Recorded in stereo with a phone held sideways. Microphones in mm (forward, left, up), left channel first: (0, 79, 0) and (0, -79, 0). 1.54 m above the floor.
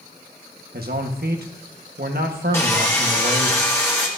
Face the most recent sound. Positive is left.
turn(degrees=15)  # may be behind; listen again after turning